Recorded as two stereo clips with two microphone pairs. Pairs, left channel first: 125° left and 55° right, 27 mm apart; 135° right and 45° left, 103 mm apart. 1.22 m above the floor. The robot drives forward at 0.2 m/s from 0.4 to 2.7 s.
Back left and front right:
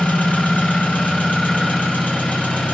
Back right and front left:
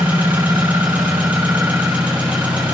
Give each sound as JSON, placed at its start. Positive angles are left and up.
{"t": 0.0, "sound": "an engine running", "azimuth_deg": 120, "distance_m": 8.5}